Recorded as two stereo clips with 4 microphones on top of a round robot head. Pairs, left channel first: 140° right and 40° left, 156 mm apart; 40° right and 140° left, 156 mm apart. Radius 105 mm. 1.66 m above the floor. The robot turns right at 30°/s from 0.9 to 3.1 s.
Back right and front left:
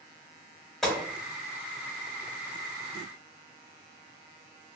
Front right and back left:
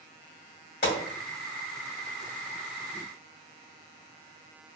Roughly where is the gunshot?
Ahead right.